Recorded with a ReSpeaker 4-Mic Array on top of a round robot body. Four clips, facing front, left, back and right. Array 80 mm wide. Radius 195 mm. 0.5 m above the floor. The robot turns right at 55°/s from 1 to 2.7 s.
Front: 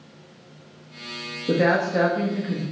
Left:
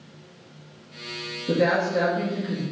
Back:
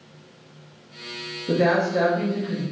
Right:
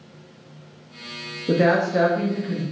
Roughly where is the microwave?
No microwave in this recording.